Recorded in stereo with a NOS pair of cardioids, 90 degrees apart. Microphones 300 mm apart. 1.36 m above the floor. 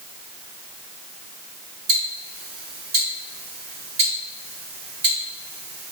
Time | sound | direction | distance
1.9 | ticking | 45° right | 2.0 m